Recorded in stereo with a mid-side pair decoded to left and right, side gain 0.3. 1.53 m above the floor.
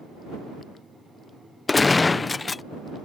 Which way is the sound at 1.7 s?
40° left.